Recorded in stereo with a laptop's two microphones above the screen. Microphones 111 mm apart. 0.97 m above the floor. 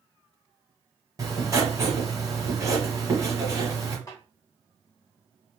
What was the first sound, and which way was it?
Writing, 30° right (ahead or behind).